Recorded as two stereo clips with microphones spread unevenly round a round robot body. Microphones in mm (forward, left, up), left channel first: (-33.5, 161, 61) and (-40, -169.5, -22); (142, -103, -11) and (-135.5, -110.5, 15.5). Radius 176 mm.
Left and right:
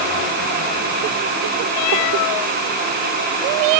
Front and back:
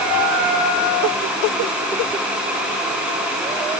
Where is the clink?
I don't hear a clink.